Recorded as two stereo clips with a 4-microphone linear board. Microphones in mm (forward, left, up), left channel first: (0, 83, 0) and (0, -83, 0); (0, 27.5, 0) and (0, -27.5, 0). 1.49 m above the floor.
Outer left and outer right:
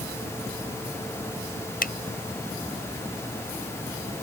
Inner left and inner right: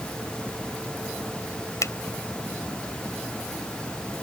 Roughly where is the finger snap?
Left.